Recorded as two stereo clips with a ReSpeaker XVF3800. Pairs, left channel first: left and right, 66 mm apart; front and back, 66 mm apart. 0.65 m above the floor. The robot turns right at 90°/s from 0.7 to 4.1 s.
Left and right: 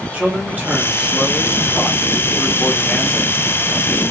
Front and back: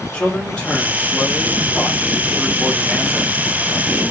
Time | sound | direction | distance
0.1 | a man speaking | 55° right | 0.9 m